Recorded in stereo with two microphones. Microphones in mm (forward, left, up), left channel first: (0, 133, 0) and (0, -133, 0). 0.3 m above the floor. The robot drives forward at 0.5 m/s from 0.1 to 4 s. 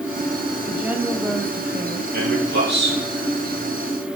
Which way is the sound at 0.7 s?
5° right (ahead or behind).